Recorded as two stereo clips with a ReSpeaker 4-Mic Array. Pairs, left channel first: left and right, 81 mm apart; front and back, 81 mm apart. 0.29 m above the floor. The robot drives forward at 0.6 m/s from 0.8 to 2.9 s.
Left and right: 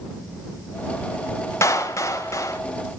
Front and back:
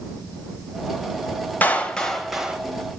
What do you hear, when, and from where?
1.6 s a clap: 60° left, 1.0 m; by 2.6 s 110° left, 1.0 m